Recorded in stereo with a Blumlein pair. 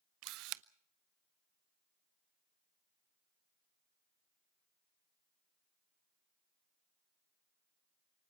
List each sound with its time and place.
0.2 s a camera shutter: 40° right, 0.6 m